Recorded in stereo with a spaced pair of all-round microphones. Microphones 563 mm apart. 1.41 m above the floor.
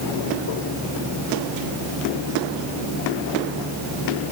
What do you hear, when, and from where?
Only background noise.